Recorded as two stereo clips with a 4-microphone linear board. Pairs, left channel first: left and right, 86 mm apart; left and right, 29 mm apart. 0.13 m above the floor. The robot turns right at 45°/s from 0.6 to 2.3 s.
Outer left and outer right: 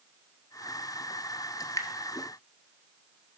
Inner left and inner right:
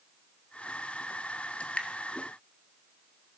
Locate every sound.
1.6 s dripping: 50° left (ahead or behind), 1.6 m; by 1.9 s 40° left (ahead or behind), 1.6 m